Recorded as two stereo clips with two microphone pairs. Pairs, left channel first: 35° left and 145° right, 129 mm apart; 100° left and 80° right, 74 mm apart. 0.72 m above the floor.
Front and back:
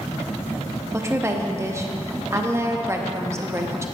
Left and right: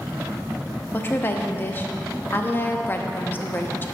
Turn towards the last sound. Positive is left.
turn(degrees=155)